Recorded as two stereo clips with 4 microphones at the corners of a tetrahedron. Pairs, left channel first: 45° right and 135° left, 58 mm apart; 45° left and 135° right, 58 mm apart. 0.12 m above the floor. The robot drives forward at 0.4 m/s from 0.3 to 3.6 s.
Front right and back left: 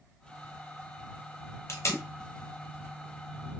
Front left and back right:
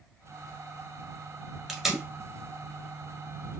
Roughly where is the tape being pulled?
Ahead right.